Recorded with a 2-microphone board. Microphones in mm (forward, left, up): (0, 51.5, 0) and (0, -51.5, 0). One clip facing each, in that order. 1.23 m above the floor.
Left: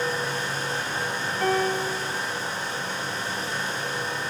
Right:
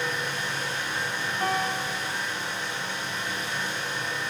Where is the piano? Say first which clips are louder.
Left 5 dB; 10° right (ahead or behind), 1.9 m.